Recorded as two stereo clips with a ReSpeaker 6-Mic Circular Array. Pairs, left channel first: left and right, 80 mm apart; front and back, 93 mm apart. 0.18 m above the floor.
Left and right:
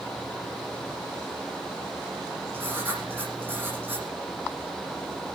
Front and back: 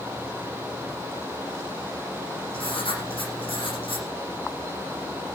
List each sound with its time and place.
2.5 s writing: 25° right, 9.5 m